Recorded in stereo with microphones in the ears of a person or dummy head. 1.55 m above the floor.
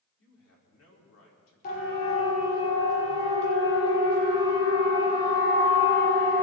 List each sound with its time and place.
0.2 s a man speaking: 80° left, 4 m
1.6 s a siren: 50° left (ahead or behind), 5 m; by 6.4 s 25° left (ahead or behind), 8 m